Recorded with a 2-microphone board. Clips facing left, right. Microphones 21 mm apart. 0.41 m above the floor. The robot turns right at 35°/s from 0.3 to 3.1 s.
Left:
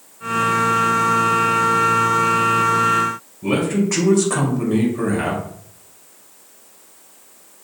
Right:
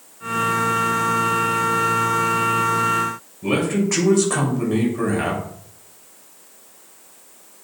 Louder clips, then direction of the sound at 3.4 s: Left 1 dB; 5° right (ahead or behind).